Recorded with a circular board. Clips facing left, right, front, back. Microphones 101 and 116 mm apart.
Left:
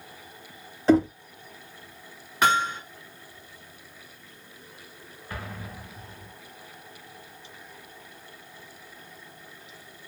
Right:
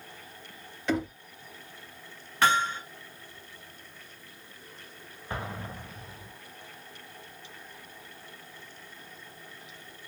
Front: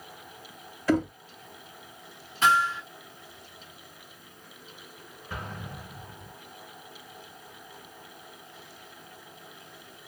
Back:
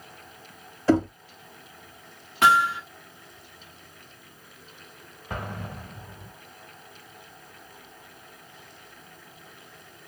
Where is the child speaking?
No child speaking in this recording.